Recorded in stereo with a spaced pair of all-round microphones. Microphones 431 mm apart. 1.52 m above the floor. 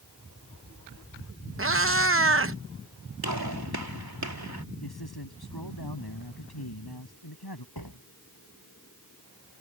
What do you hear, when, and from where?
1.6 s a cat meowing: 30° right (ahead or behind)
3.2 s a gunshot: 55° right (ahead or behind)
4.8 s a man speaking: 60° left (ahead or behind)
7.8 s a door slam: 55° left (ahead or behind)